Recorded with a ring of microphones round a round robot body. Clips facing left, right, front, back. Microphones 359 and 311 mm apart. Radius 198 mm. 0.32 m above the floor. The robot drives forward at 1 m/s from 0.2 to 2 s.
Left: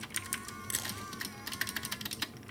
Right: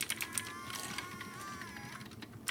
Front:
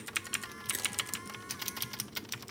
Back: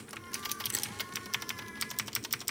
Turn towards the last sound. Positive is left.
turn(degrees=110)